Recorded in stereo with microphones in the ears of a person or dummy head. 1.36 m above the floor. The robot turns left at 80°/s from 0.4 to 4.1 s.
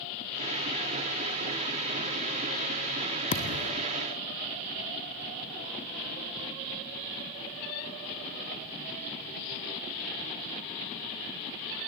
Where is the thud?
150° left, 1.4 m; by 3.9 s 105° left, 1.4 m.